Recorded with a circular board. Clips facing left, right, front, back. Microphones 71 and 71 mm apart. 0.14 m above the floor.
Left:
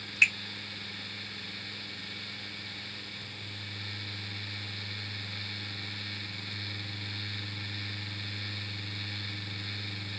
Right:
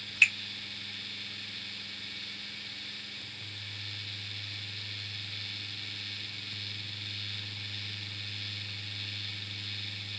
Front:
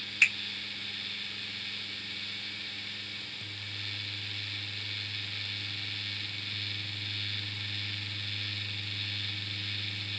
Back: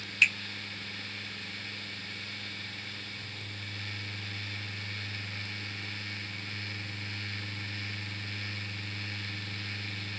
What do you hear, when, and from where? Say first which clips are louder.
0.2 s a finger snap: even, back 1 dB; 40° left, 0.9 m